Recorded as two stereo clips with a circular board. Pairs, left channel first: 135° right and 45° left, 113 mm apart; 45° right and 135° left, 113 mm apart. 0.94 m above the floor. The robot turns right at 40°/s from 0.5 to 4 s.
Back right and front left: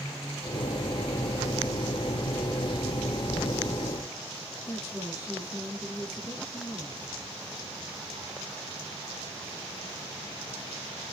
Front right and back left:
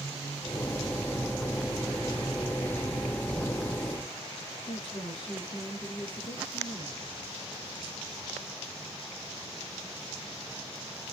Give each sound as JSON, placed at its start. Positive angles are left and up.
{"t": 4.7, "sound": "a woman speaking", "azimuth_deg": -85, "distance_m": 8.0}